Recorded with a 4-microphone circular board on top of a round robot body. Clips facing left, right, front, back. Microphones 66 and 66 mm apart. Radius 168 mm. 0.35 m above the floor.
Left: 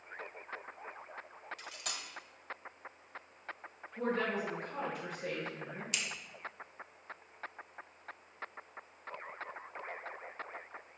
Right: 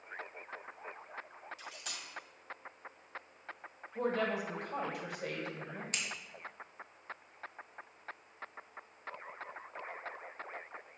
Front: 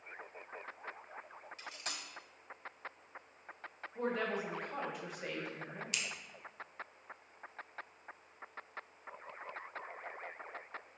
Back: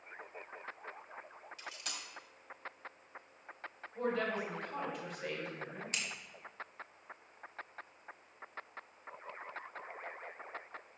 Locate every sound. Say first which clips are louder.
1.6 s cutlery clinking: left 2 dB, even; 55° left, 1.2 m
4.0 s a woman speaking: right 1 dB, back 1 dB; 85° right, 2.5 m
5.9 s scissors: left 1 dB, even; 130° right, 1.6 m